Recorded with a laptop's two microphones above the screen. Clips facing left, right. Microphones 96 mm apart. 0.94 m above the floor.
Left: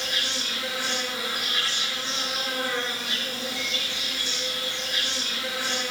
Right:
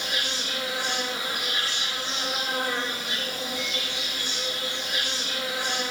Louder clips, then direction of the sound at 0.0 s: Right 1 dB; 20° right (ahead or behind).